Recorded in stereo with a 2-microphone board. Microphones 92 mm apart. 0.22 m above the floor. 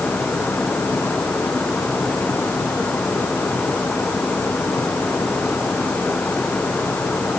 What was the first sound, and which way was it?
Only background noise.